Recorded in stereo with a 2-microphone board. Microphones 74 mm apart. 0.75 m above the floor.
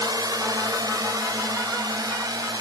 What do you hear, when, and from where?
0.0 s a drone: 65° right (ahead or behind)